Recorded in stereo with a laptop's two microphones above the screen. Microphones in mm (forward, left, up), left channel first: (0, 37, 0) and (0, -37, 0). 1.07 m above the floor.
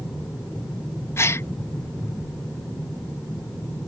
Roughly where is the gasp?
Left.